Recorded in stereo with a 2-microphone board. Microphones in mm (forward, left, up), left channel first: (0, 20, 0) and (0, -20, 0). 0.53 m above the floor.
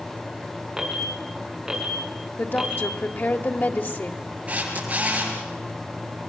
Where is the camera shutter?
35° right (ahead or behind), 9 m.